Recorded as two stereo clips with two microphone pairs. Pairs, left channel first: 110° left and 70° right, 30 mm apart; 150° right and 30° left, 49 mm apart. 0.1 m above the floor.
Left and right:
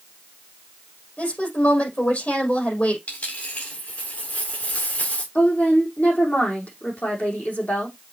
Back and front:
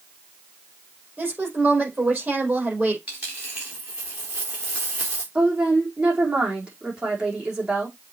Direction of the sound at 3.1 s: 95° left.